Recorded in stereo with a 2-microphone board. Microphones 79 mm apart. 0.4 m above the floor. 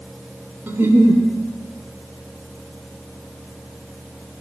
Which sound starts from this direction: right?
A giggle, at 0.7 s.